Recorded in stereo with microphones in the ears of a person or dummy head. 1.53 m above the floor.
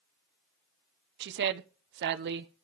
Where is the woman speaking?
70° right (ahead or behind), 0.7 m.